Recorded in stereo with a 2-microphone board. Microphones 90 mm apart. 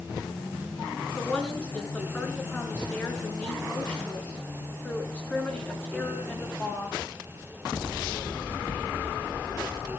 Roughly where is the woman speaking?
Centre.